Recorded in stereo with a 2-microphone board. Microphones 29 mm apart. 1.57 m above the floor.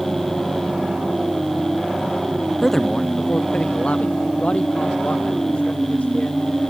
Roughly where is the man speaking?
Centre.